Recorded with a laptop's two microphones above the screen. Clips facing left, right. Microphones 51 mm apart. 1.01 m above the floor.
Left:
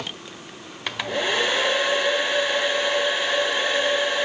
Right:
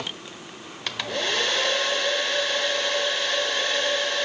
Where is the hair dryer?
15° left (ahead or behind), 0.9 m.